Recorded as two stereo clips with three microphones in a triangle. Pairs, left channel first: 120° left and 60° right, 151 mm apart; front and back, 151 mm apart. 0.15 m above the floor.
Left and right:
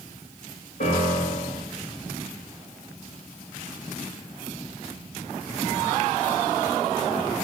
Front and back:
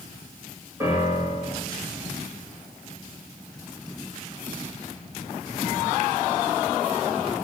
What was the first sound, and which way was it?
A piano, 110° left.